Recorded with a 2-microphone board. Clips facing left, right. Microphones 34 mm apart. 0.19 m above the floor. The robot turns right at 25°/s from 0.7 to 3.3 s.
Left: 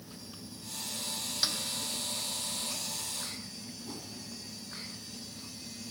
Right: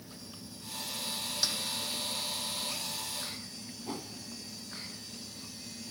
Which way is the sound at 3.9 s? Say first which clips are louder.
Right 6 dB; 40° right (ahead or behind).